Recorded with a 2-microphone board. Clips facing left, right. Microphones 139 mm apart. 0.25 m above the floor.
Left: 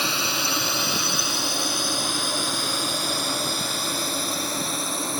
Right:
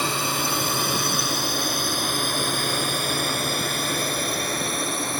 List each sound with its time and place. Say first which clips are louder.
0.0 s a drone: right 2 dB; 45° right (ahead or behind); by 5.2 s 60° right (ahead or behind)